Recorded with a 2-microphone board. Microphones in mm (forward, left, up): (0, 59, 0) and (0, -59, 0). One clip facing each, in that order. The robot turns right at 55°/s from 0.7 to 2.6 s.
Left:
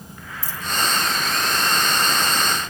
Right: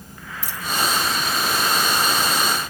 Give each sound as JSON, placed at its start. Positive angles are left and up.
{"t": 0.4, "sound": "a dropped coin", "side_deg": -80}